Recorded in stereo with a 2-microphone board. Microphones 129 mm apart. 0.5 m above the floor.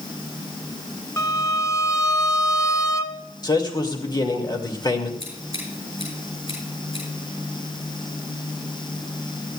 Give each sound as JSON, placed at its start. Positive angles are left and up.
{"t": 1.2, "sound": "a violin", "side_deg": 25, "distance_m": 1.0}
{"t": 3.4, "sound": "a man speaking", "side_deg": 35, "distance_m": 2.0}
{"t": 5.2, "sound": "scissors", "side_deg": 50, "distance_m": 9.0}